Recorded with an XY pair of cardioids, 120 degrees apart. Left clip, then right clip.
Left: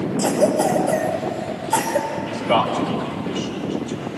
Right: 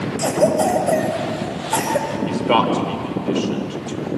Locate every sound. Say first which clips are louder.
0.2 s a cough: right 1 dB; 20° right, 7 m
2.2 s a man speaking: right 3 dB; 40° right, 4.5 m